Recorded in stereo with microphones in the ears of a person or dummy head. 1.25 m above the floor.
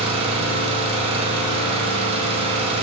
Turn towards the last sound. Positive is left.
turn(degrees=-35)  # may be behind; listen again after turning